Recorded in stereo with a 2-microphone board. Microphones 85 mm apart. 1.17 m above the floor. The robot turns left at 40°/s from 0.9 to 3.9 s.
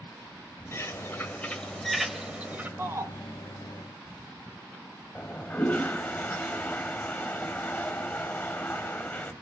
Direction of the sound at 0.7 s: 45° left.